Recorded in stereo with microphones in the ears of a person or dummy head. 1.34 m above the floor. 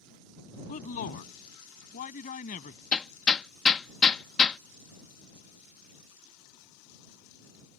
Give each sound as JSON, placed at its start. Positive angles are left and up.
{"t": 0.7, "sound": "a man speaking", "side_deg": 50}
{"t": 2.9, "sound": "hammering", "side_deg": 10}